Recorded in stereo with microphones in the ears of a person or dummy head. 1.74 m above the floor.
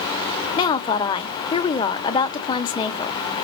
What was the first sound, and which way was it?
A woman speaking, 25° left (ahead or behind).